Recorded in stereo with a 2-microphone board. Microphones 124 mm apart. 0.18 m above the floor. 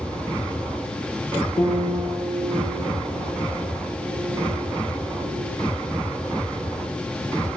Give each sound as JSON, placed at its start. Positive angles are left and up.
{"t": 1.6, "sound": "a piano", "side_deg": 70, "distance_m": 6.5}